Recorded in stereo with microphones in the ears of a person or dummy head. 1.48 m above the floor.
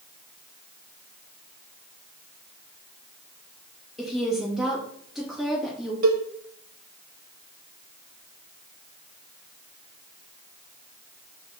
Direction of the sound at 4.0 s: 5° right (ahead or behind).